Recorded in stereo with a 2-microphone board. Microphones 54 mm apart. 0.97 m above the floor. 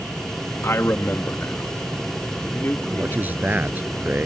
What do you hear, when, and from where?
0.6 s a man speaking: 55° left (ahead or behind); by 3.8 s 40° left (ahead or behind)
2.8 s a man speaking: 35° right (ahead or behind)